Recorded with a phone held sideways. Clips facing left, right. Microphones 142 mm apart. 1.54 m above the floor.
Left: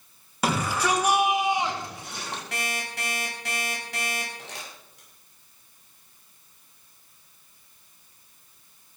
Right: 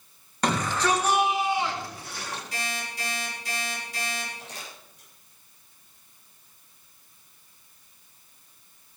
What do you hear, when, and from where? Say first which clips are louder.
0.4 s a shout: even; 5° left (ahead or behind), 3 m; by 2.4 s 25° left (ahead or behind), 3.5 m
2.5 s an alarm clock: left 2 dB; 75° left (ahead or behind), 6.5 m
4.4 s crumpling: left 1 dB; 90° left, 7.5 m